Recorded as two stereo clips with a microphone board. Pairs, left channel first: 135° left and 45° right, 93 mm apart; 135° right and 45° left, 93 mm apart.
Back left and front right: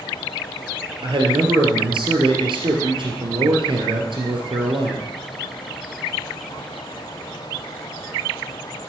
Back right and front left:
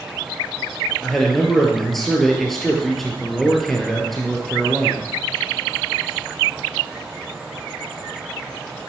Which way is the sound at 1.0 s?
45° right.